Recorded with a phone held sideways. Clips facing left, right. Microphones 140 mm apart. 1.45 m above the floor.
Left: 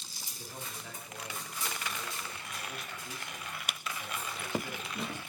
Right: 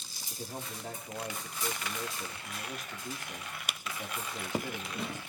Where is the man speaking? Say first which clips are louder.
Right 5 dB; 50° right (ahead or behind), 3.5 m.